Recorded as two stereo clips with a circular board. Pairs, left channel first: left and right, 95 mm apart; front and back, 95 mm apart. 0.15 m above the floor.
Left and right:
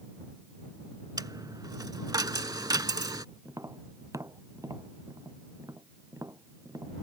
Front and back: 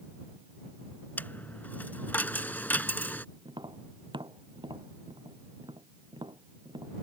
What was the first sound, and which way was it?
A dropped coin, 65° right.